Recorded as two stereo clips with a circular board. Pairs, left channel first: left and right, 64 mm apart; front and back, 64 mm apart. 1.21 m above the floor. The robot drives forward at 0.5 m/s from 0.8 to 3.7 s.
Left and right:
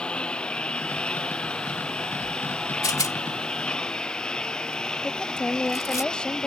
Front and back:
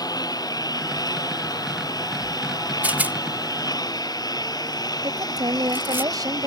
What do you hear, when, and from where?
0.0 s a lawn mower: 15° left; by 6.5 s 10° left
2.8 s a rattle: 115° left; by 6.0 s 125° left
5.0 s a woman speaking: 165° left